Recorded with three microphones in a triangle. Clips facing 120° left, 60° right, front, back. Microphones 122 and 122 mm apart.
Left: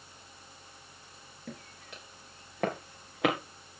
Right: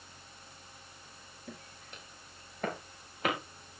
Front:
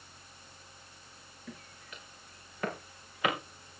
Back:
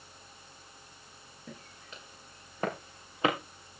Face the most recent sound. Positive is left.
turn(degrees=120)